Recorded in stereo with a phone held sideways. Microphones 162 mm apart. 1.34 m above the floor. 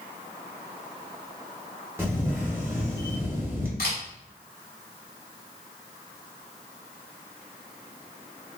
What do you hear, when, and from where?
2.0 s a camera shutter: 15° right (ahead or behind), 1.2 m
3.8 s a camera shutter: 70° left (ahead or behind), 2 m